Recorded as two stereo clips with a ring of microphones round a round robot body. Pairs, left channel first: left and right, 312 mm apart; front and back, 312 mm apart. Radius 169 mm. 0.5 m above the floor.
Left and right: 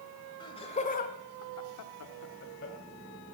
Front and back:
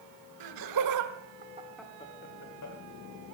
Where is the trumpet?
No trumpet in this recording.